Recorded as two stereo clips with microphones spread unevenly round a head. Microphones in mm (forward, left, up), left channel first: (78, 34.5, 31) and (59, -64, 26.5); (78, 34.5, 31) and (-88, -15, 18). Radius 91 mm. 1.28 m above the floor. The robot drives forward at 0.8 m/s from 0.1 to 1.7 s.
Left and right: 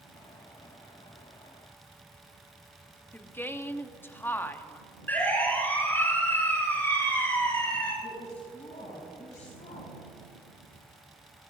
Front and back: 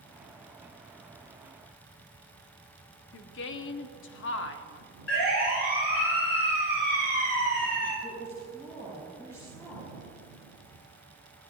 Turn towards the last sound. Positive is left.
turn(degrees=95)